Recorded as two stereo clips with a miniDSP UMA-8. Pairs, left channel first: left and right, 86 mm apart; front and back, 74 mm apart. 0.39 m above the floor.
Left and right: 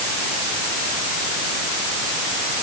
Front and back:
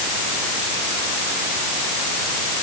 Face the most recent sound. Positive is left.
No sound to turn to.